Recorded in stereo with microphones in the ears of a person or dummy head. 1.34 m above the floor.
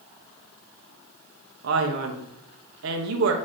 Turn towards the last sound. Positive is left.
turn(degrees=-70)  # may be behind; listen again after turning